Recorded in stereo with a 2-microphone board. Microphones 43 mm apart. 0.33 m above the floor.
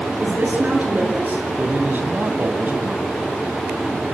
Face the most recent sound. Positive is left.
turn(degrees=-50)  # may be behind; listen again after turning